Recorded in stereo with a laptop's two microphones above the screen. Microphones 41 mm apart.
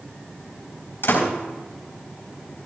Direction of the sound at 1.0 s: 65° left (ahead or behind).